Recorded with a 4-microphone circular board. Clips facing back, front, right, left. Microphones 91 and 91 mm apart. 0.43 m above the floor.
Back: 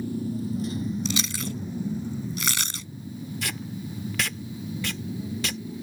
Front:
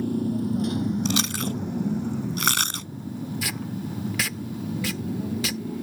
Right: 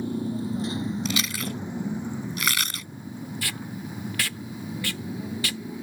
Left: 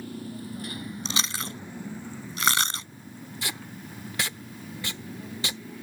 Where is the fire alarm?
No fire alarm in this recording.